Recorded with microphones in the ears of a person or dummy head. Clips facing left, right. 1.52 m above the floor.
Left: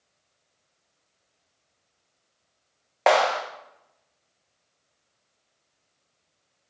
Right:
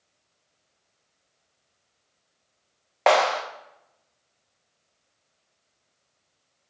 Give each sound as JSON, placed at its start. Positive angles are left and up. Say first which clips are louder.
{"t": 3.1, "sound": "a clap", "louder": "even", "side_deg": 0, "distance_m": 1.3}